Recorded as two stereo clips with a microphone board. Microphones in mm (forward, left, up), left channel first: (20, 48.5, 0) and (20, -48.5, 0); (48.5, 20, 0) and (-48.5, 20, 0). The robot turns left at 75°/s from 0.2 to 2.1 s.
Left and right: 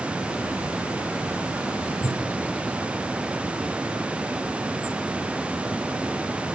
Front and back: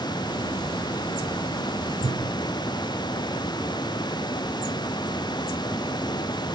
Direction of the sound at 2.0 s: 135° right.